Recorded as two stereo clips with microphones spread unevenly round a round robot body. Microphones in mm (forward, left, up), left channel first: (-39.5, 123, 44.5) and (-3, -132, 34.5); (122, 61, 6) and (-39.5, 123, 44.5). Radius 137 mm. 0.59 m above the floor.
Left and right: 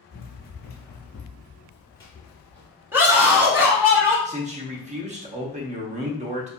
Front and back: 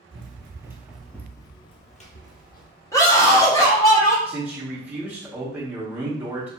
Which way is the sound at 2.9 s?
10° right.